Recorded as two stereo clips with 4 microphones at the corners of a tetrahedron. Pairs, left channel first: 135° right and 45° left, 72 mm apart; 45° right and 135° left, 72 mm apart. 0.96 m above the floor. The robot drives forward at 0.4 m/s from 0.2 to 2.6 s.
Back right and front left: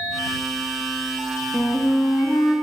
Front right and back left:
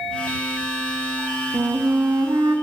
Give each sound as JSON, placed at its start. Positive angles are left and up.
{"t": 1.5, "sound": "a flute", "azimuth_deg": 170, "distance_m": 0.7}